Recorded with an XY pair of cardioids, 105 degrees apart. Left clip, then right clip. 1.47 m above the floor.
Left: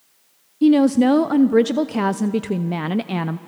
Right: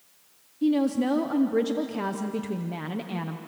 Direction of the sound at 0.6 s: 60° left.